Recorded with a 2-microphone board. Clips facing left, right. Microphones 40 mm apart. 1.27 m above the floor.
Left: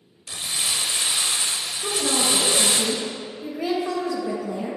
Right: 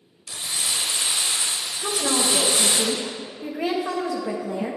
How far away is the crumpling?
About 1.6 m.